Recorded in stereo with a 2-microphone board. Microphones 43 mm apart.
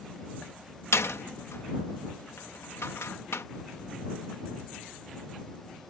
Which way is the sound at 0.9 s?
85° left.